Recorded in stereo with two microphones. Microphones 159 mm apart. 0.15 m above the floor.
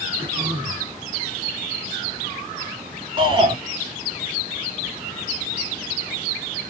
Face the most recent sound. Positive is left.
turn(degrees=-35)  # may be behind; listen again after turning